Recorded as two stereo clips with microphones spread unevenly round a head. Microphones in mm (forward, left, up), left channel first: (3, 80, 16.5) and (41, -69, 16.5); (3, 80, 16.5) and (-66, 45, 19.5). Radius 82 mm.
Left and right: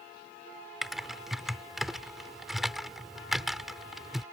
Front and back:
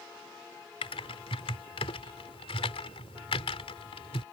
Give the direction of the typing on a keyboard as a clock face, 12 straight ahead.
12 o'clock.